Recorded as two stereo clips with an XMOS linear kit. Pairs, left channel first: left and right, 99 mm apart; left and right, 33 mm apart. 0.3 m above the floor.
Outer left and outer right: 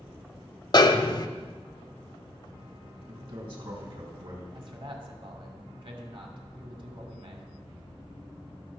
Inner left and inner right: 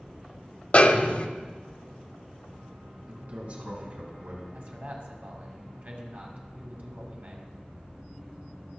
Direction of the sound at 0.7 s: 40° left (ahead or behind).